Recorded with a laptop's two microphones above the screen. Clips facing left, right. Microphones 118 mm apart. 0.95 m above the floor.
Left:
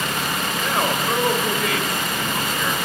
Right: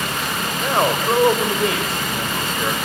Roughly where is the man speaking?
Right.